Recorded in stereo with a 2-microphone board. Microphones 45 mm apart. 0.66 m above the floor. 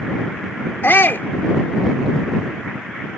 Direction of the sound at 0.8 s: 50° left (ahead or behind).